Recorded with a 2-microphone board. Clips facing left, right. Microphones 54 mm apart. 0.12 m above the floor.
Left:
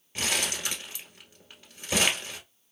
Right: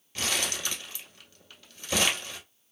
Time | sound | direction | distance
0.1 | crumpling | 20° left (ahead or behind) | 1.1 m